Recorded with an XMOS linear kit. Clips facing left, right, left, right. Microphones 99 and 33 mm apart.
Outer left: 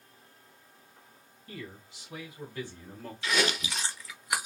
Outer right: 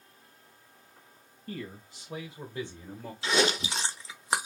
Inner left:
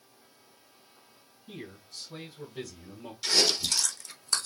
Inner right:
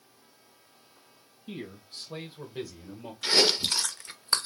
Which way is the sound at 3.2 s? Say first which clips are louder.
Outer right 3 dB, inner right 2 dB; 30° right (ahead or behind).